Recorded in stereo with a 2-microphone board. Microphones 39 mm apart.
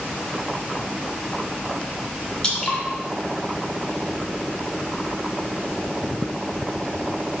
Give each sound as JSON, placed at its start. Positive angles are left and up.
{"t": 2.4, "sound": "dripping", "side_deg": 20, "distance_m": 2.0}